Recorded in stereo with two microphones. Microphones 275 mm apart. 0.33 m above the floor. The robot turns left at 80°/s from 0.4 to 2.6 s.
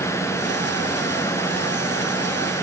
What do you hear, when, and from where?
Only background noise.